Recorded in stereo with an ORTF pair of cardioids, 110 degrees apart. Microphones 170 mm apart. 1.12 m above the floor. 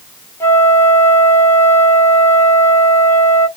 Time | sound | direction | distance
0.4 | a flute | 15° left | 1.1 m